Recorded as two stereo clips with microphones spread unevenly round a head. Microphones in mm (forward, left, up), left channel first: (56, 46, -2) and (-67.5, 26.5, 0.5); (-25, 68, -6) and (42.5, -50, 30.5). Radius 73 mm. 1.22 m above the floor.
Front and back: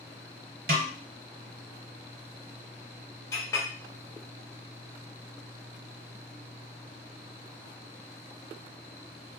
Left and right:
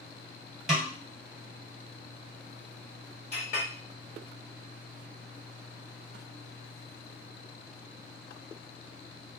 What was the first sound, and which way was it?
A snare drum, 145° right.